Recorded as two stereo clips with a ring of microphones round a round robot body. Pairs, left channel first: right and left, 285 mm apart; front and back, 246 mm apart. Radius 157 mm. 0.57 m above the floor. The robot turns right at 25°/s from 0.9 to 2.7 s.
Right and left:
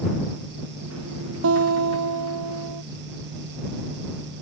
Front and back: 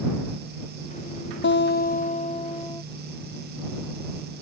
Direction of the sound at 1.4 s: 45° left.